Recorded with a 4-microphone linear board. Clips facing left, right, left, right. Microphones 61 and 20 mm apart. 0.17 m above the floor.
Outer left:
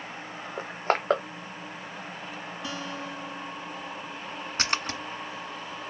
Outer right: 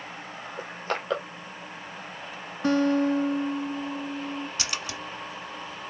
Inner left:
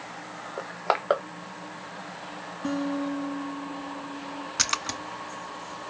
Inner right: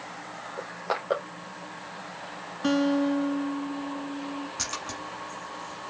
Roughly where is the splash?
Left.